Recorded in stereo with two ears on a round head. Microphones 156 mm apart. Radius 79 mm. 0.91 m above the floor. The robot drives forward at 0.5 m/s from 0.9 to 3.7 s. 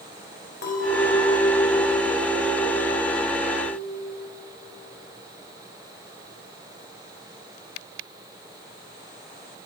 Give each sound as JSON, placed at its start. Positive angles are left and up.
{"t": 0.6, "sound": "a clink", "side_deg": 70, "distance_m": 3.0}